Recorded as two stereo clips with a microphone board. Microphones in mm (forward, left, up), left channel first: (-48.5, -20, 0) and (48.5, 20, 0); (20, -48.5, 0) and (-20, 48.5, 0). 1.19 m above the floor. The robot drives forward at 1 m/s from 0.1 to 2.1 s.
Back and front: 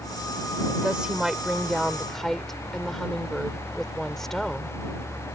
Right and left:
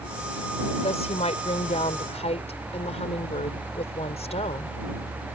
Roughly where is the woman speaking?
Ahead right.